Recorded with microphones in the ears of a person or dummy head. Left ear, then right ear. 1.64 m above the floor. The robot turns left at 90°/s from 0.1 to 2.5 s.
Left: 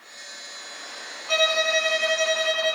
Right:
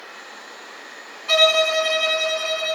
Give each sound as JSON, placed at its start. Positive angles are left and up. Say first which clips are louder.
{"t": 1.3, "sound": "a violin", "louder": "right 5 dB", "azimuth_deg": -95, "distance_m": 1.6}